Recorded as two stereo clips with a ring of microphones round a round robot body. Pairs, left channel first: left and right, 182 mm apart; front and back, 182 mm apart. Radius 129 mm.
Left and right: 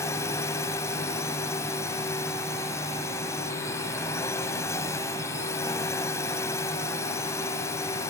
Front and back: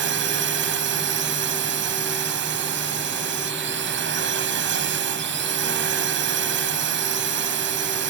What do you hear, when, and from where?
0.0 s a drone: 170° left